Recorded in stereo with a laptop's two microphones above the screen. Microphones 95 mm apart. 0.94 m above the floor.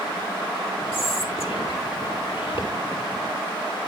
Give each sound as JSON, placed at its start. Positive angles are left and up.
{"t": 0.9, "sound": "whispering", "side_deg": 75, "distance_m": 3.0}